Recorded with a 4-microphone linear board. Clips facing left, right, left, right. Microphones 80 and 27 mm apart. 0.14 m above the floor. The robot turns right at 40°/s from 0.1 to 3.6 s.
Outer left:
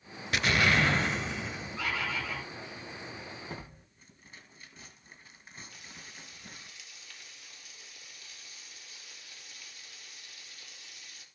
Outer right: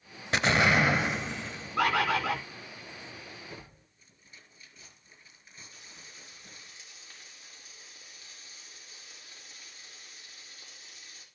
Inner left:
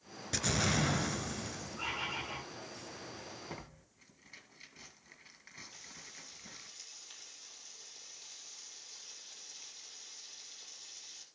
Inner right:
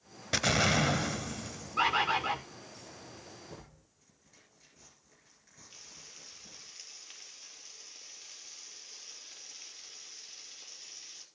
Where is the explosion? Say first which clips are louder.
Outer right 2 dB, inner right 5 dB; 40° right, 0.8 m; by 1.8 s 20° left, 0.8 m.